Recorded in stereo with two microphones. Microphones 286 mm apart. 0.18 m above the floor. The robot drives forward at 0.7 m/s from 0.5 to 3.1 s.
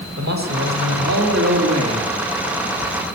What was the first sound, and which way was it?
A man speaking, 65° right (ahead or behind).